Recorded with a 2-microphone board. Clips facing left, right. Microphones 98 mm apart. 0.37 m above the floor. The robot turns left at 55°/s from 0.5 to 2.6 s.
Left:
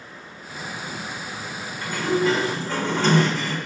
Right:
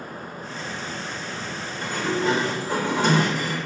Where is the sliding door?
25° right (ahead or behind), 1.5 m; by 3.6 s 15° right (ahead or behind), 1.5 m.